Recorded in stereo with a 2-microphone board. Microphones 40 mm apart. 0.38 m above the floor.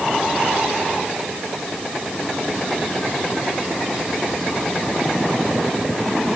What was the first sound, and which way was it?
Only background noise.